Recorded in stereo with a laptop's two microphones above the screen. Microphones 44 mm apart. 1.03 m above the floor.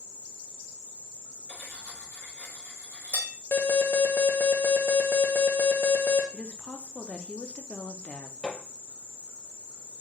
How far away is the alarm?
About 0.7 m.